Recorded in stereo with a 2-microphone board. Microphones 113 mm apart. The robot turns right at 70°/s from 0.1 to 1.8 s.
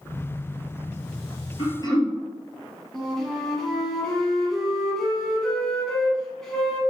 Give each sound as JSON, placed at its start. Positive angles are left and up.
{"t": 1.6, "sound": "throat clearing", "side_deg": 50, "distance_m": 1.4}
{"t": 2.9, "sound": "a flute", "side_deg": 5, "distance_m": 1.6}